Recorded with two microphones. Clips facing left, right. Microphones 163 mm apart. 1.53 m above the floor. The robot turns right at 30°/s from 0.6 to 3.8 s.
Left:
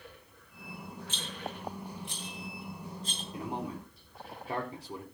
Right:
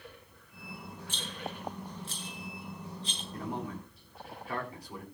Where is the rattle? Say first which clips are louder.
Right 1 dB; 15° right (ahead or behind), 7.5 m; by 3.2 s 50° left (ahead or behind), 7.5 m.